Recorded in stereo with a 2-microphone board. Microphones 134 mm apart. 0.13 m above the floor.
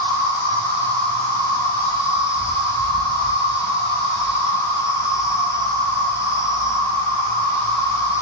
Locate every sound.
0.0 s an insect: 25° left (ahead or behind), 0.7 m